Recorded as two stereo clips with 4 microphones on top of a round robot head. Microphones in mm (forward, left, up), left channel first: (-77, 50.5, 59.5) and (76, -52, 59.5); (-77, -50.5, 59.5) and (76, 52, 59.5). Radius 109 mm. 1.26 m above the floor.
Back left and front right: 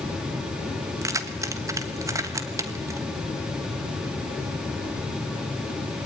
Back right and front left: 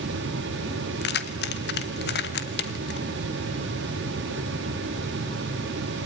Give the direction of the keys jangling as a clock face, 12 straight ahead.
4 o'clock.